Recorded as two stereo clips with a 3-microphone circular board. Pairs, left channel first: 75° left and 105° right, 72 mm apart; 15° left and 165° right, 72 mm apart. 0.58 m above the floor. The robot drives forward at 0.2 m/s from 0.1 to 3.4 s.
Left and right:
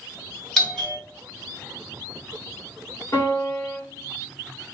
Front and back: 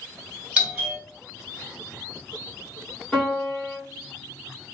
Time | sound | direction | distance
0.6 | a doorbell | 150° left | 1.5 m
3.1 | a piano | 90° left | 1.9 m